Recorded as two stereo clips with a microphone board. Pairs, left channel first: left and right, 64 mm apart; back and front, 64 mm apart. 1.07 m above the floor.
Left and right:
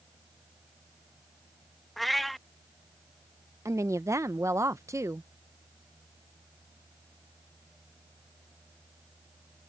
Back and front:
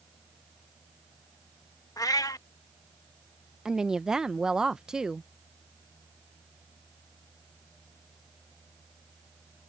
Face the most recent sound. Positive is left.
turn(degrees=-80)